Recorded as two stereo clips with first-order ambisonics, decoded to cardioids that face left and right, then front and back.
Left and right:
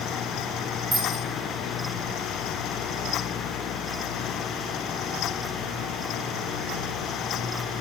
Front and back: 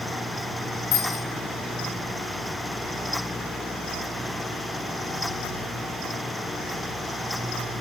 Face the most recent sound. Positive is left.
turn(degrees=-15)